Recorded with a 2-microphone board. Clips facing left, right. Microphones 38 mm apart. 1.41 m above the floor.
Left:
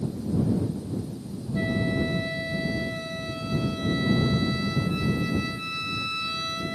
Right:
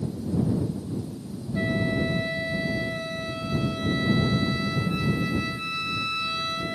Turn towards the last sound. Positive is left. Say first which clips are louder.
# right 1 dB
turn(degrees=-5)  # may be behind; listen again after turning